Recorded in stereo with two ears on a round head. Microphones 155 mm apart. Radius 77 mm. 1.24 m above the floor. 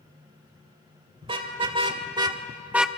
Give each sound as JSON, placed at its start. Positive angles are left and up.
{"t": 1.2, "sound": "a car horn", "side_deg": -30, "distance_m": 2.5}